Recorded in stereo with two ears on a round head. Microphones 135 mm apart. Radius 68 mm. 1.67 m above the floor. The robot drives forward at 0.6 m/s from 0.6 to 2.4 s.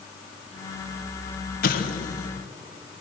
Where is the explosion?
65° left (ahead or behind), 1.6 m; by 2.3 s 55° left (ahead or behind), 1.8 m.